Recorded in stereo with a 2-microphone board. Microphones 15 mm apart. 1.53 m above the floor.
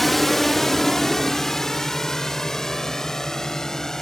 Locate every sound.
0.0 s a drone: 15° left (ahead or behind); by 4.0 s 40° left (ahead or behind)